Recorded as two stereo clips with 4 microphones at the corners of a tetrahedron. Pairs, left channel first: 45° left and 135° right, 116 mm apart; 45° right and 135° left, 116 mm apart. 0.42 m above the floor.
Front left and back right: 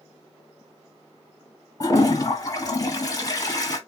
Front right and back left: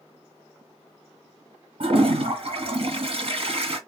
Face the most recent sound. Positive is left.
turn(degrees=105)